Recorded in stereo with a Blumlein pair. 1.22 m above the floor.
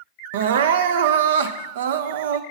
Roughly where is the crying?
Ahead right.